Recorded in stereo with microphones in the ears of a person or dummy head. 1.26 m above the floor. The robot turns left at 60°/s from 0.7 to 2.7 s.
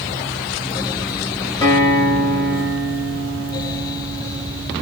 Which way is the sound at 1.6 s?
20° left (ahead or behind).